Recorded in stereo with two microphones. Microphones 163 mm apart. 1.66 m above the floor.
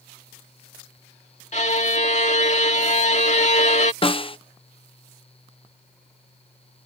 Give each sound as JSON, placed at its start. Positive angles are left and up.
{"t": 1.5, "sound": "a violin", "side_deg": 45}
{"t": 4.0, "sound": "a snare drum", "side_deg": 35}